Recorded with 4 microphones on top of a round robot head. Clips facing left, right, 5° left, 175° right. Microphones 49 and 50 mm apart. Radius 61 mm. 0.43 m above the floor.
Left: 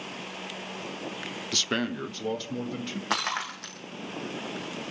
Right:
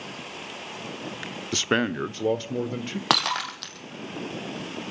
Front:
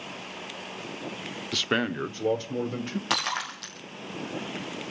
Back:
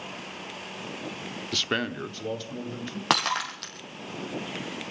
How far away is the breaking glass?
About 3.5 m.